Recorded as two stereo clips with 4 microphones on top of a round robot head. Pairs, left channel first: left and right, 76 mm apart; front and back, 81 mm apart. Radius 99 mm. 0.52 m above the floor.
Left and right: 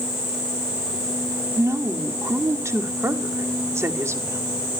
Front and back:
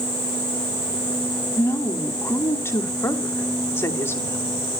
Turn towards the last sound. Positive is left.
turn(degrees=-45)